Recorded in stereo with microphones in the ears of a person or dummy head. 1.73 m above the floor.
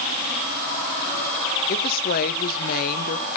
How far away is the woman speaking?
About 0.8 m.